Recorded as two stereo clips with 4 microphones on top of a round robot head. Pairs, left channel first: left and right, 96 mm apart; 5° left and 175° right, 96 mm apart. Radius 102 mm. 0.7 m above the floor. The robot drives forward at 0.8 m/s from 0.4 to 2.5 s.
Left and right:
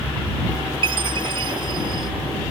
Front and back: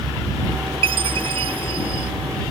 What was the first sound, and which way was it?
A chime, 135° right.